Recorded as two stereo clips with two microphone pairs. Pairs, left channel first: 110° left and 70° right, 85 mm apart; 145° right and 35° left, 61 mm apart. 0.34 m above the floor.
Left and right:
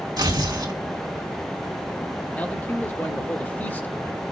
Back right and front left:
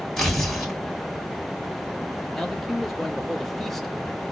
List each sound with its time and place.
0.2 s tearing paper: 60° right, 2.5 m
2.3 s a man speaking: 140° left, 1.1 m